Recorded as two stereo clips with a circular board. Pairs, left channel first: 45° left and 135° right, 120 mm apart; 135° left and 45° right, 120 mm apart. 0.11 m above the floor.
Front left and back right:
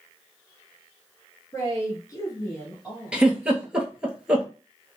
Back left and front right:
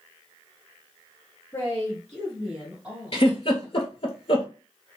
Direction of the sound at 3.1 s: 145° left.